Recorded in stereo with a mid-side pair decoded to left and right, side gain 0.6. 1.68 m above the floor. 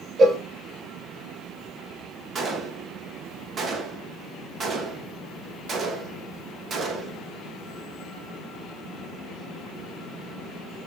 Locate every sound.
0.2 s a cowbell: 35° right, 2 m
2.4 s a gunshot: 35° right, 2.5 m